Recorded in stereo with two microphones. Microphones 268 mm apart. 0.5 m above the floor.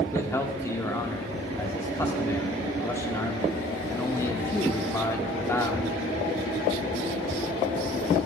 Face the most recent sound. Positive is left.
turn(degrees=10)  # may be behind; listen again after turning